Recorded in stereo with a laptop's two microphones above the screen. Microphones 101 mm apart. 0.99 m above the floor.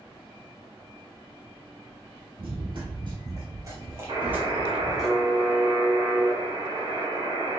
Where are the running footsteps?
55° right (ahead or behind), 1.6 m; by 5.1 s centre (ahead or behind), 1.1 m.